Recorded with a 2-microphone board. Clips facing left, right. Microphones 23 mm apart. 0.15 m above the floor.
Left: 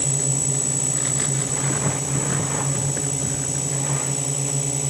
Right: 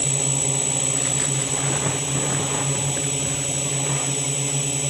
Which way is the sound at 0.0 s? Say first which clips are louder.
Right 1 dB; 50° right (ahead or behind).